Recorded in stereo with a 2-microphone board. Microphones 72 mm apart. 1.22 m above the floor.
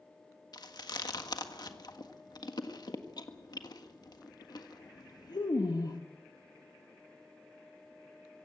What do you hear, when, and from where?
0.5 s chewing: 70° left (ahead or behind), 1.5 m